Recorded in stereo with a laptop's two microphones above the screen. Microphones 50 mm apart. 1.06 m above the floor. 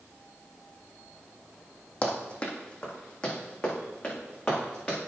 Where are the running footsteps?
25° left (ahead or behind), 3 m; by 5.0 s 15° left (ahead or behind), 6.5 m.